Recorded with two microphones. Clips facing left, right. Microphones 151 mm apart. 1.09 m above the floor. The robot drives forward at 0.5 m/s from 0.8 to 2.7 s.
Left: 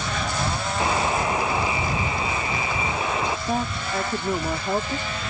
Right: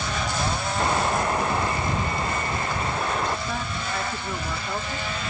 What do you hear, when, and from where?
0.8 s a buzzer: 5° left (ahead or behind)
3.5 s a woman speaking: 40° left (ahead or behind)